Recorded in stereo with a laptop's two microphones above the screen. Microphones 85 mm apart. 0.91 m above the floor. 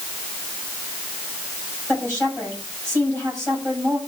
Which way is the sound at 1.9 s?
15° left (ahead or behind).